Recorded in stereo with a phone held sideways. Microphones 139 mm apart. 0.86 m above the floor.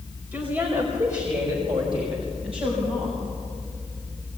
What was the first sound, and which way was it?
A woman speaking, 15° right (ahead or behind).